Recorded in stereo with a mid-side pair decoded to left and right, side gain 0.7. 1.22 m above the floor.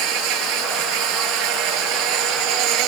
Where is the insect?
65° right.